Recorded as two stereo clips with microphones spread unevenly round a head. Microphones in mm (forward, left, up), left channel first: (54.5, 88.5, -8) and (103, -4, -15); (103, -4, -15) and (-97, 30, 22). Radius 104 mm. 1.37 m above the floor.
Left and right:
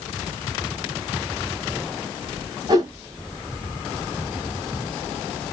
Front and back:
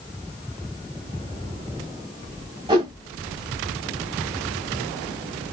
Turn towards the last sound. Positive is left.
turn(degrees=-130)